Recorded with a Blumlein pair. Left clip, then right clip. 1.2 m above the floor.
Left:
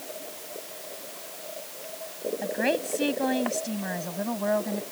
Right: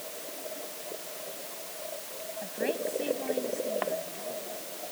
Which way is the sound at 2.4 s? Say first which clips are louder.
Left 4 dB; 25° left.